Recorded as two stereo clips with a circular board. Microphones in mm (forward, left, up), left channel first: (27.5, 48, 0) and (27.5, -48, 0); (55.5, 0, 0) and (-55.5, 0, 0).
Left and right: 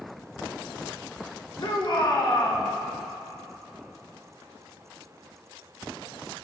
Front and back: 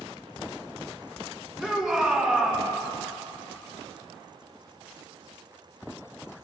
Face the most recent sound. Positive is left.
turn(degrees=95)